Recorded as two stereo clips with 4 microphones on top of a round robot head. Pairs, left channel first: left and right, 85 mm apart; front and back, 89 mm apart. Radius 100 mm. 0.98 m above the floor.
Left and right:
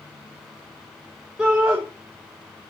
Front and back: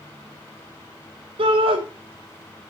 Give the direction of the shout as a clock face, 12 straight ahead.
6 o'clock.